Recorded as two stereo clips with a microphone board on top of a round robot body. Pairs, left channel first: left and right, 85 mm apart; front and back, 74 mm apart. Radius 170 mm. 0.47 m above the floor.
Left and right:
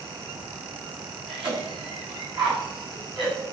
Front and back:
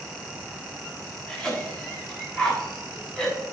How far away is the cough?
About 6.5 m.